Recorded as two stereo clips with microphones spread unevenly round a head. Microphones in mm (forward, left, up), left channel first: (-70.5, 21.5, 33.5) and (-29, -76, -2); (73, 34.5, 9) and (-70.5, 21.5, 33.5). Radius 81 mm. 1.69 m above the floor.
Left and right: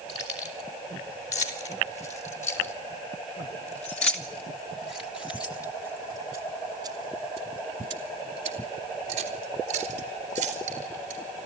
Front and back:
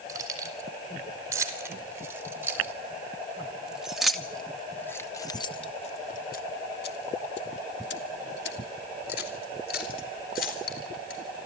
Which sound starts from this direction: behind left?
Keys jangling, at 0.1 s.